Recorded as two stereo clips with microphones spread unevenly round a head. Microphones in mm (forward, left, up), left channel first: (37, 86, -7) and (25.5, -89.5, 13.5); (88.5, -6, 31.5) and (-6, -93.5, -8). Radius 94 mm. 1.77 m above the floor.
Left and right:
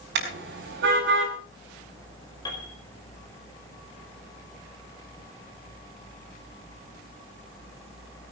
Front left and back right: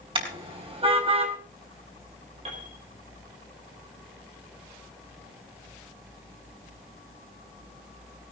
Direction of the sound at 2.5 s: 160° left.